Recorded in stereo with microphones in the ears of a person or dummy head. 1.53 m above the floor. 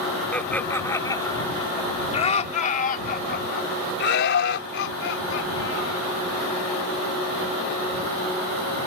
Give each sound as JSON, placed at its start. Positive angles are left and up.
{"t": 0.3, "sound": "laughter", "side_deg": 5}